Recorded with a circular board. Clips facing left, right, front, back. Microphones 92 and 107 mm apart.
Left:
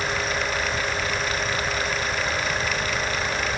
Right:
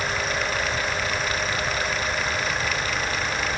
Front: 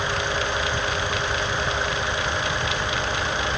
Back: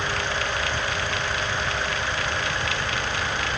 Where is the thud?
I don't hear a thud.